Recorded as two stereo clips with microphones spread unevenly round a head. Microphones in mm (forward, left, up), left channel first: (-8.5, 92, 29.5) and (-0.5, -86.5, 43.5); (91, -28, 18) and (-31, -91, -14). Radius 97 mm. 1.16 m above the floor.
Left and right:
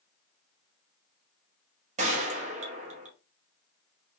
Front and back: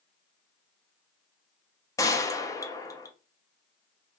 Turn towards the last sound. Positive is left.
turn(degrees=-35)